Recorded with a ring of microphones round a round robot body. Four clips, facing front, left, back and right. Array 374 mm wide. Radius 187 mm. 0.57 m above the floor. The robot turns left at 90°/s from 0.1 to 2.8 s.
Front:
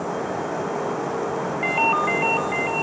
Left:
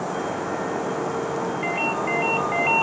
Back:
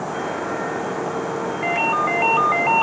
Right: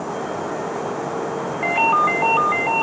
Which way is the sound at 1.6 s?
70° right.